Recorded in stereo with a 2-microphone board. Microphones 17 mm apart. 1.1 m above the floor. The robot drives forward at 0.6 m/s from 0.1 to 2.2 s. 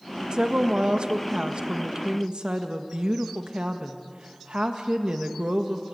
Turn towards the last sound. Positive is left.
turn(degrees=-60)  # may be behind; listen again after turning